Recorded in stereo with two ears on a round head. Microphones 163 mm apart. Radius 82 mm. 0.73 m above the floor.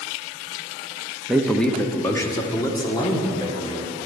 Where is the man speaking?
5° right (ahead or behind), 0.8 m; by 4.0 s 25° left (ahead or behind), 2.5 m.